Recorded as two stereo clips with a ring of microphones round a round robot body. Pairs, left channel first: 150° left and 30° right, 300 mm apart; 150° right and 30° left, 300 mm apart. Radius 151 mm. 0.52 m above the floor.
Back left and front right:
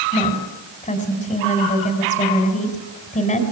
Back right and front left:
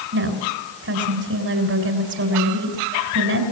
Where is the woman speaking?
80° left, 4 m.